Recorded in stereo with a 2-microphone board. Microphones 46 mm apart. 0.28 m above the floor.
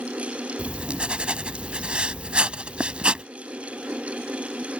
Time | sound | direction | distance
0.6 | writing | 25° right (ahead or behind) | ?